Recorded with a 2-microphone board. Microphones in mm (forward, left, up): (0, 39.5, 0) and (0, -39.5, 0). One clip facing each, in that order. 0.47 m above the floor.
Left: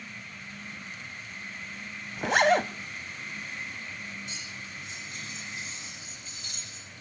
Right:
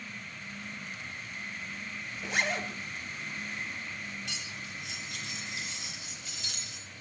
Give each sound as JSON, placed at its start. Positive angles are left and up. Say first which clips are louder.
{"t": 2.2, "sound": "a zipper", "louder": "left 10 dB", "side_deg": 75, "distance_m": 0.8}
{"t": 4.2, "sound": "cutlery clinking", "louder": "even", "side_deg": -85, "distance_m": 5.5}